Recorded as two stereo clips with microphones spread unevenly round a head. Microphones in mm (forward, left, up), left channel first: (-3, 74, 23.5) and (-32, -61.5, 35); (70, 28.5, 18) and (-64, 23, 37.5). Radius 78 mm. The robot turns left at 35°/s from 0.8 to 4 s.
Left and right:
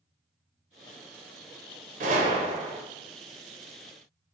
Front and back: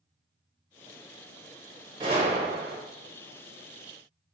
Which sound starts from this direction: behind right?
A gunshot, at 2.0 s.